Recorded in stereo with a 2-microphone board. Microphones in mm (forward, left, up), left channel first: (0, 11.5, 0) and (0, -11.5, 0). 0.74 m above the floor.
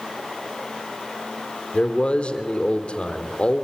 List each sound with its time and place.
1.7 s a man speaking: 60° left (ahead or behind), 2.5 m